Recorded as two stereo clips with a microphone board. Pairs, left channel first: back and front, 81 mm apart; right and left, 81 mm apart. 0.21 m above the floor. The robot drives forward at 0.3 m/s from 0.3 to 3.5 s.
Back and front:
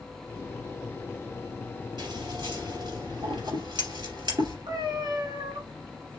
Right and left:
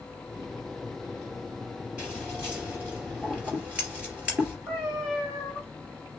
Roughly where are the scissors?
Ahead.